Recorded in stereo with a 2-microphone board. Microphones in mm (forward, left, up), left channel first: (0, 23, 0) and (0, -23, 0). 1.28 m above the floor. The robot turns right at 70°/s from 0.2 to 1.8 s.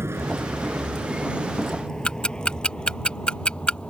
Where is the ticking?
20° left (ahead or behind).